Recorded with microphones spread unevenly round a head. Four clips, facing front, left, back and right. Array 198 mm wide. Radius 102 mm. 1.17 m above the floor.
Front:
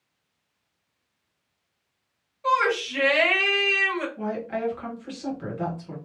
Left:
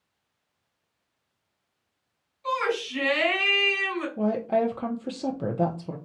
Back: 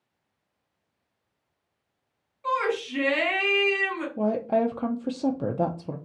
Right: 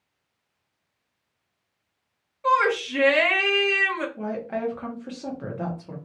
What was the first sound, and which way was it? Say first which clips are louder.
A shout: right 6 dB, front 4 dB; 75° right.